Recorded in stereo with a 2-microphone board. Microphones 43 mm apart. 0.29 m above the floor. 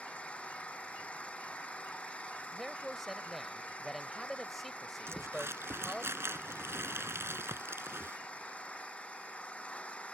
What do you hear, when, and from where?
0.0 s an engine running: 25° left (ahead or behind)
2.5 s a man speaking: 5° left (ahead or behind)
5.1 s crumpling: 70° right (ahead or behind)